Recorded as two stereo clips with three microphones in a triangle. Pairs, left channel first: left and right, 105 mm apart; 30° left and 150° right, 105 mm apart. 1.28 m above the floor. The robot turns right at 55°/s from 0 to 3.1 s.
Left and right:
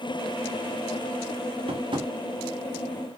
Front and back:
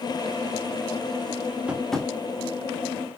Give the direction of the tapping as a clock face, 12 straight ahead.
2 o'clock.